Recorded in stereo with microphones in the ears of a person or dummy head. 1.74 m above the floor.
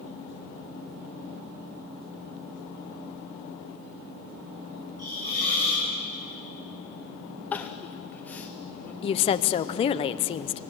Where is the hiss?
55° right (ahead or behind), 6 m.